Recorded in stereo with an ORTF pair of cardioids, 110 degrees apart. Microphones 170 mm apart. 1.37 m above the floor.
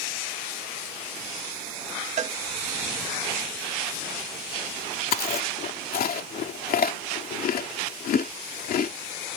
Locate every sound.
2.2 s a cowbell: 45° right
5.1 s chewing: 60° left